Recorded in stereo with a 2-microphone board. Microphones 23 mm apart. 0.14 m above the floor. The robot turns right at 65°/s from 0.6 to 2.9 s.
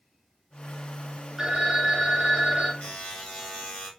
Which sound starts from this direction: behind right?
A phone ringing, at 1.4 s.